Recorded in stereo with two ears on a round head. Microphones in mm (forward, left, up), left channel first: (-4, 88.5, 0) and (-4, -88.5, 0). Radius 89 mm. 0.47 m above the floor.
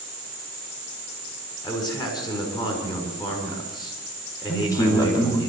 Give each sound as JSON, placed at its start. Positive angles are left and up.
{"t": 1.6, "sound": "a man speaking", "side_deg": 20, "distance_m": 6.5}
{"t": 4.5, "sound": "a man speaking", "side_deg": 20, "distance_m": 4.5}